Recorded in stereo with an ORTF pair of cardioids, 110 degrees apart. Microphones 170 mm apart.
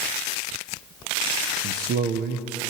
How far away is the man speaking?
About 1.6 m.